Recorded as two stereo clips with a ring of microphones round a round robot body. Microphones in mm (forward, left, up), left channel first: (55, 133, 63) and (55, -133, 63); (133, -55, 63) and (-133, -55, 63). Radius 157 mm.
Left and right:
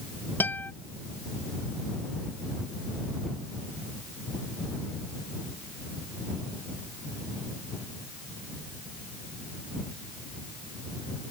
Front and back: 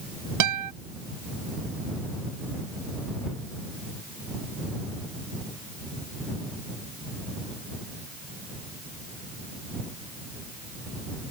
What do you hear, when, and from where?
0.4 s a guitar: 175° left